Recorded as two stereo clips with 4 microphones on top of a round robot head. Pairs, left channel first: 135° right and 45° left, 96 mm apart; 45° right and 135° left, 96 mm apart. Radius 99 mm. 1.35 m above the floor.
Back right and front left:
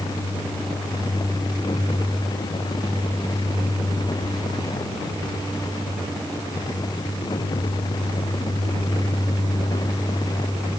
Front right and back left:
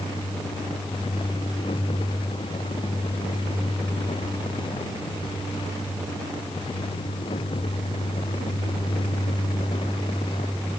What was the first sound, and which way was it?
Only background noise.